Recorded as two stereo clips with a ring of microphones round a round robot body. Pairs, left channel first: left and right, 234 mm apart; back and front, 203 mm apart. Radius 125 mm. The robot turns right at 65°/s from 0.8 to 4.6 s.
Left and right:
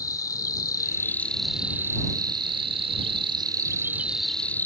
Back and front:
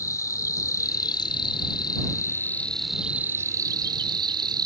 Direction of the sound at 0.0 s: 135° left.